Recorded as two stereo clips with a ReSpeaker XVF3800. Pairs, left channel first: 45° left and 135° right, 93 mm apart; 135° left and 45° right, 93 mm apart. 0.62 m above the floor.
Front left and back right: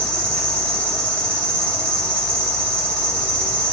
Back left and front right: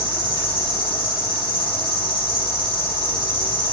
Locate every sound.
0.0 s an insect: 120° left, 4 m